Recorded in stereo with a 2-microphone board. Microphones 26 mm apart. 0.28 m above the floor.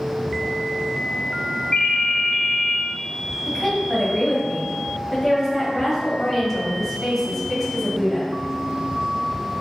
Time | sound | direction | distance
1.7 | a ringtone | 50° left (ahead or behind) | 0.8 m
3.5 | a woman speaking | 10° left (ahead or behind) | 1.6 m